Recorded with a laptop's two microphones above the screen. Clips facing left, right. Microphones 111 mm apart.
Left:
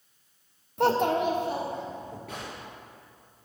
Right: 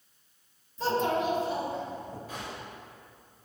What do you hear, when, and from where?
0.8 s a child speaking: 65° left (ahead or behind), 0.6 m; by 2.2 s 50° left (ahead or behind), 2.5 m
2.3 s a gunshot: 70° left (ahead or behind), 3.5 m